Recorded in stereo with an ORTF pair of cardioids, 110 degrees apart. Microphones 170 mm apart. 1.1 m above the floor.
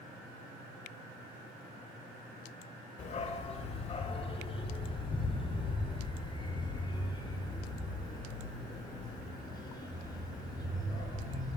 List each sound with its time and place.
3.0 s a dog barking: 45° left, 1.8 m; by 11.6 s 20° left, 7 m